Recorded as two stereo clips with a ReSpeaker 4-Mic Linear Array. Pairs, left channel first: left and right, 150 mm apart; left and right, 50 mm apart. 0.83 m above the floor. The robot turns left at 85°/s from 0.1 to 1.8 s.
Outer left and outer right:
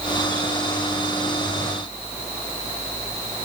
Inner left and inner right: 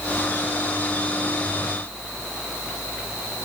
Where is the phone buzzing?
No phone buzzing in this recording.